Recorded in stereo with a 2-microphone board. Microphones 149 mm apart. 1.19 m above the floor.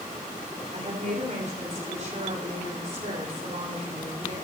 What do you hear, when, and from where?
0.7 s a woman speaking: 55° right (ahead or behind), 3.5 m